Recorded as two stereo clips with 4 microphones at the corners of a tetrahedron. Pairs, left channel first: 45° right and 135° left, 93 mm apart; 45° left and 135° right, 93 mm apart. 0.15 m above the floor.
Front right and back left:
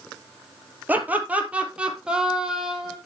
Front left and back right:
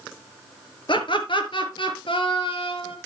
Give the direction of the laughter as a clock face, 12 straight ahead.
10 o'clock.